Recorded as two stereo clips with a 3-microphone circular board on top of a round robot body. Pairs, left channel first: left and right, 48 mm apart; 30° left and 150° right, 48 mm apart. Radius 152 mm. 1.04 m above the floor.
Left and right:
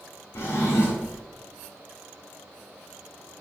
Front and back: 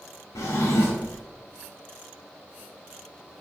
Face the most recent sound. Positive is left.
turn(degrees=50)